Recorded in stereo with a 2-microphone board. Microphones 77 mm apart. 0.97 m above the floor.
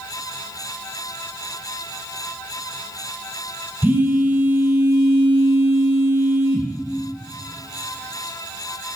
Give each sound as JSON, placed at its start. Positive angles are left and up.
{"t": 3.8, "sound": "a phone buzzing", "side_deg": -20, "distance_m": 1.5}